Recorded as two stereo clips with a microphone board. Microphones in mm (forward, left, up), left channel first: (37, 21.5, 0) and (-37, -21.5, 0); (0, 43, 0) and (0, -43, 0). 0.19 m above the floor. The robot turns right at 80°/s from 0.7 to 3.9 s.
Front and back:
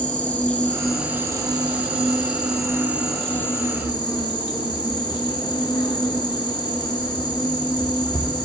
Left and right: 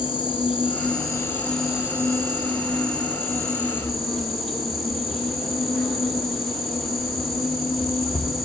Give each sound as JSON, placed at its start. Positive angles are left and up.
{"t": 0.0, "sound": "an insect", "azimuth_deg": 105, "distance_m": 1.1}